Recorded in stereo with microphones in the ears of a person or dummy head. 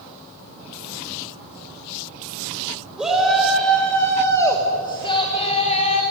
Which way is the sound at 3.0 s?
10° right (ahead or behind).